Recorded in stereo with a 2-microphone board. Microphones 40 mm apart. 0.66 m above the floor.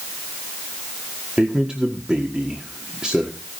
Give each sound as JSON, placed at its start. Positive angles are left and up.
{"t": 1.4, "sound": "a man speaking", "side_deg": -20, "distance_m": 1.7}